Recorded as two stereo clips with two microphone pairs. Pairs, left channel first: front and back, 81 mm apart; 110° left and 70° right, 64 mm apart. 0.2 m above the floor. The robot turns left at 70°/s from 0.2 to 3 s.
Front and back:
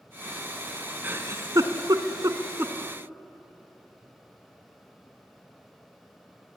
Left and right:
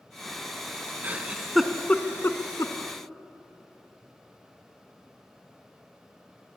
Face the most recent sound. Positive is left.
turn(degrees=100)